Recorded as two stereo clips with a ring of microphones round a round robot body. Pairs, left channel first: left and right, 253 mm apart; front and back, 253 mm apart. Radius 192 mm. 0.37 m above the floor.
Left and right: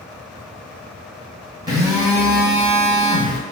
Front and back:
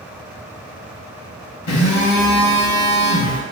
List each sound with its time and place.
1.7 s a phone buzzing: 15° right, 1.5 m